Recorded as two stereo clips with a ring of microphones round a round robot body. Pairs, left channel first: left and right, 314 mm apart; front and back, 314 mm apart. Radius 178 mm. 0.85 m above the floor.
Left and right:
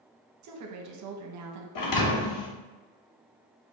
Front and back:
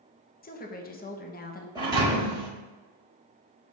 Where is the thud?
100° left, 0.7 m.